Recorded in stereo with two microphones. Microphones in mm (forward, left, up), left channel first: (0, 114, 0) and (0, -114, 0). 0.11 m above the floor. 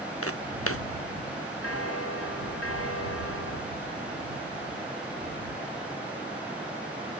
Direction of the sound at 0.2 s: 80° left.